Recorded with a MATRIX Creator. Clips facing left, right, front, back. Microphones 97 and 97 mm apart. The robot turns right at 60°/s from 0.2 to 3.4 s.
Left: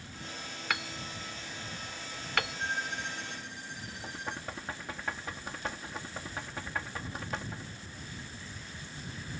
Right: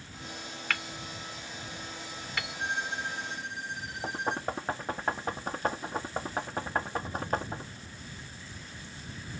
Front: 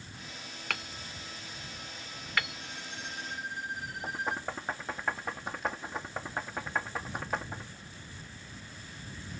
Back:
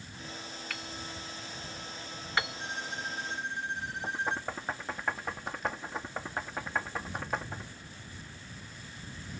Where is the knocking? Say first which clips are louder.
Right 9 dB, back 1 dB; 90° right.